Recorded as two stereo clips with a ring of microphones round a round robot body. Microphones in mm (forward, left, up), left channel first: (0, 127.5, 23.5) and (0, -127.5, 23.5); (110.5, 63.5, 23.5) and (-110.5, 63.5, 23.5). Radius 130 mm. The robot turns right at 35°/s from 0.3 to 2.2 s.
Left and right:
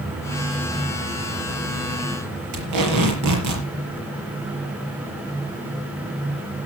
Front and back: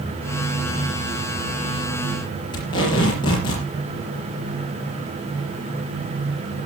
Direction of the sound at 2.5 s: 75° right.